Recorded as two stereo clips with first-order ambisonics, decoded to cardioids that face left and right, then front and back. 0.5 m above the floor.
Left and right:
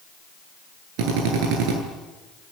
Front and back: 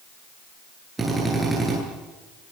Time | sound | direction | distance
1.0 | a drill | 100° right | 10 m